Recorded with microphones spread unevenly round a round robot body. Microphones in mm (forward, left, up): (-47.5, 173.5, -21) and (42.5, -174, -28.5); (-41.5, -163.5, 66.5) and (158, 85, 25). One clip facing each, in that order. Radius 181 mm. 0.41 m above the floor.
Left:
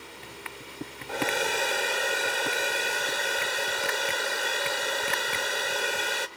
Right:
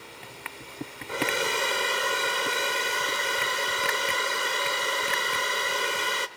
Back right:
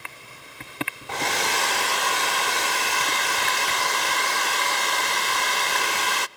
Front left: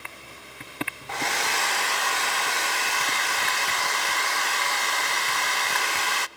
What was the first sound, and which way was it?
A hair dryer, 155° right.